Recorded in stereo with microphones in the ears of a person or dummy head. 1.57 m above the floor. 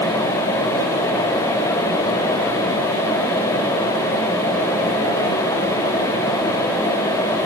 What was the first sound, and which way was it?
Only background noise.